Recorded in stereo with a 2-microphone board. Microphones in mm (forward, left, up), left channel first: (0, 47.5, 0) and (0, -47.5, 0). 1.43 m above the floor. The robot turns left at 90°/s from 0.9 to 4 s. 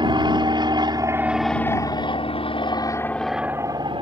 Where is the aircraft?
55° right (ahead or behind); by 4.0 s 65° right (ahead or behind).